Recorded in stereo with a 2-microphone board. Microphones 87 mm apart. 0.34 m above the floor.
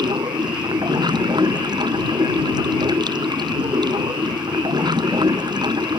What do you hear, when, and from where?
0.0 s running water: 55° right (ahead or behind)